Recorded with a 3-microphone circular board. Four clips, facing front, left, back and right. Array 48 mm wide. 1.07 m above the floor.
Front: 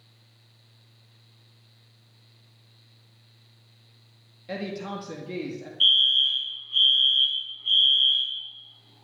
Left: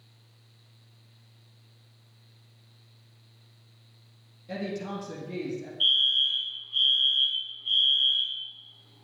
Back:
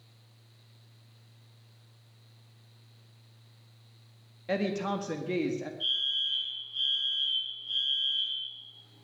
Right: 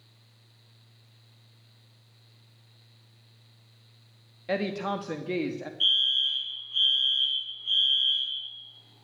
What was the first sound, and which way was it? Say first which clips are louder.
A woman speaking: right 5 dB, back 3 dB; 115° right.